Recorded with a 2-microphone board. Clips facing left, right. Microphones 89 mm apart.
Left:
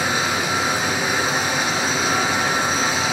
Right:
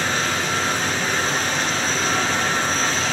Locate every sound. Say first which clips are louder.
0.0 s running water: left 1 dB; 10° left (ahead or behind), 1.8 m